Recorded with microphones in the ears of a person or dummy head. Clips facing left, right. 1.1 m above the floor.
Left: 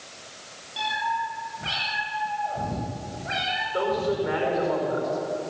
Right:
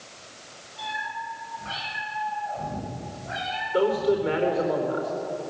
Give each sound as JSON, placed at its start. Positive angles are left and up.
{"t": 0.8, "sound": "a cat meowing", "side_deg": 85, "distance_m": 10.0}
{"t": 3.7, "sound": "a man speaking", "side_deg": -35, "distance_m": 4.0}